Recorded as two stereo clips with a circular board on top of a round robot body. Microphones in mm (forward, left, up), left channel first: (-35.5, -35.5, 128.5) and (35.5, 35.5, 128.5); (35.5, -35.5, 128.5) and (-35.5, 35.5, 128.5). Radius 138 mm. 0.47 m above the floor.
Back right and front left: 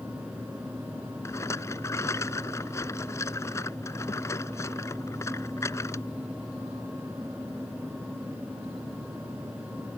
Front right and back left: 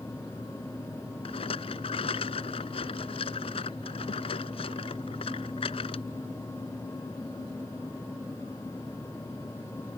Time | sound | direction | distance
1.2 | a rattle | 70° right | ?